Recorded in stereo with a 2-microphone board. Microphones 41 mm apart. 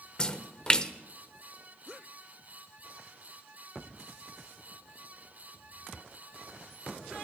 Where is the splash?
20° left (ahead or behind), 0.8 m.